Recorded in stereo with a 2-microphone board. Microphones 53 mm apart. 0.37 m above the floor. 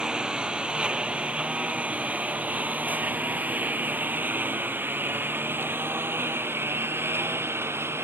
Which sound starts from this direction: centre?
A lawn mower, at 0.0 s.